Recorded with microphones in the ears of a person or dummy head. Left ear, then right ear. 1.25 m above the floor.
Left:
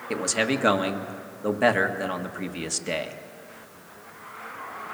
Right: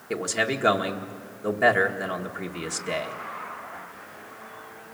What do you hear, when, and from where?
0.1 s a man speaking: 10° left (ahead or behind), 1.8 m